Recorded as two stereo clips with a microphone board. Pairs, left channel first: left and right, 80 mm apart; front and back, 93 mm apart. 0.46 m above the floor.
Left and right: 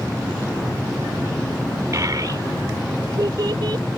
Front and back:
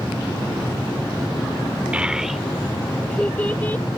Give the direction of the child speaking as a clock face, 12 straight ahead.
4 o'clock.